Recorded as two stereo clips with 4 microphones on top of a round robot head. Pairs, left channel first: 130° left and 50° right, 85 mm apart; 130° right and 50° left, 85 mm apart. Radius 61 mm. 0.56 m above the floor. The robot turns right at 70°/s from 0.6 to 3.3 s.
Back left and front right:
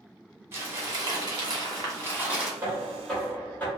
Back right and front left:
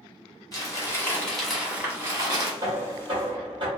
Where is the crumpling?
100° right, 1.6 m; by 2.5 s 30° left, 1.6 m.